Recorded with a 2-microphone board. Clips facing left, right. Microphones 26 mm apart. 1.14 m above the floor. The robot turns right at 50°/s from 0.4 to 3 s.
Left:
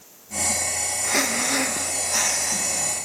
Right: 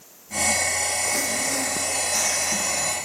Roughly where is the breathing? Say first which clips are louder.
Left 2 dB; left.